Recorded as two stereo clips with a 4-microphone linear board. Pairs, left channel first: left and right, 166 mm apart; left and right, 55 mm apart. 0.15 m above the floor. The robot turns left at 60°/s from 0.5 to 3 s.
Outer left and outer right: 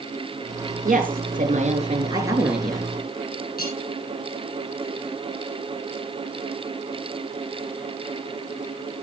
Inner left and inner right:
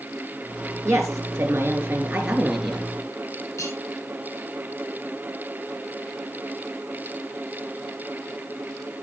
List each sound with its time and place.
0.8 s a woman speaking: 75° right, 2.5 m; by 2.9 s 165° left, 2.5 m
3.6 s cutlery clinking: 65° left (ahead or behind), 3.5 m